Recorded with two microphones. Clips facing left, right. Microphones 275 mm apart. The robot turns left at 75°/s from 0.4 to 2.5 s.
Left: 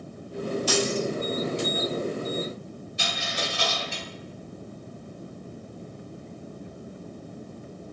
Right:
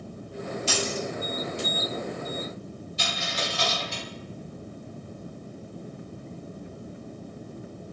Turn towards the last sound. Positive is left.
turn(degrees=65)  # may be behind; listen again after turning